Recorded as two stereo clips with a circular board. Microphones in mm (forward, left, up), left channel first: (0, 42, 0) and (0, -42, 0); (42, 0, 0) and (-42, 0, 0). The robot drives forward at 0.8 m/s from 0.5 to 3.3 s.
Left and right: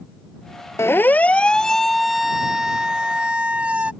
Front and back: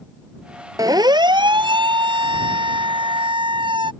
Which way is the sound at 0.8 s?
145° left.